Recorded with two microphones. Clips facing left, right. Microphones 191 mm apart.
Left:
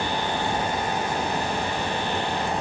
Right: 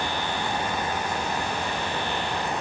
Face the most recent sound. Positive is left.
No sound to turn to.